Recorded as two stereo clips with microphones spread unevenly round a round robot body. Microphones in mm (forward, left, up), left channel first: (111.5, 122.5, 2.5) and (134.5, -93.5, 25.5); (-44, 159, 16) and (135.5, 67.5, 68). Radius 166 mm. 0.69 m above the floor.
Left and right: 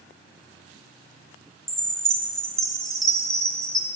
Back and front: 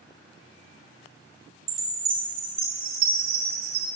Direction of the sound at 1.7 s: 5° left.